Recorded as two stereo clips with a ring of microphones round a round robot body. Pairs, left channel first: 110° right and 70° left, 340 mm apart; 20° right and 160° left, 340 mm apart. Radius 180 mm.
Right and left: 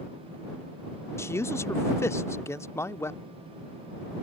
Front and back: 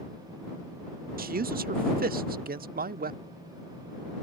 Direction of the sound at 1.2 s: 175° left.